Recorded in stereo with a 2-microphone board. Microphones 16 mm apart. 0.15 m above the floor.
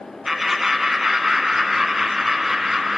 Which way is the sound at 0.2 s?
15° right (ahead or behind).